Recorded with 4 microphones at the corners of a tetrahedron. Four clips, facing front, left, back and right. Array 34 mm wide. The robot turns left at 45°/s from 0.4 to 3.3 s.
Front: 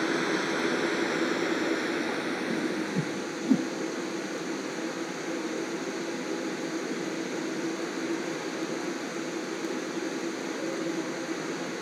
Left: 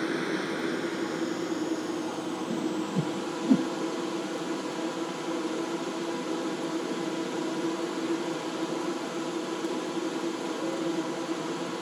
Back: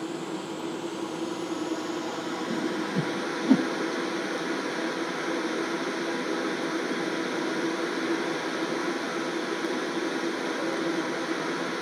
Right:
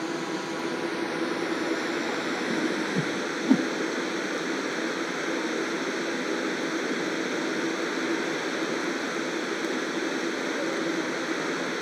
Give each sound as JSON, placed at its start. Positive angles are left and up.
{"t": 0.0, "sound": "running water", "azimuth_deg": 15, "distance_m": 2.5}
{"t": 2.5, "sound": "a whoosh", "azimuth_deg": -100, "distance_m": 1.9}